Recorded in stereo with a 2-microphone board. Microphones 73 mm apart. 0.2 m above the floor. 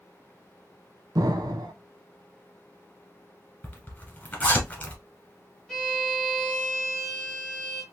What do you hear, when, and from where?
1.1 s an explosion: 60° right (ahead or behind), 0.5 m
3.6 s a zipper: 25° left (ahead or behind), 2 m
5.7 s a violin: 5° left (ahead or behind), 1.7 m